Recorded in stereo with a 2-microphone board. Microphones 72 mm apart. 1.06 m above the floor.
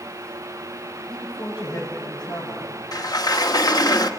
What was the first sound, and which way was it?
A man speaking, 65° left (ahead or behind).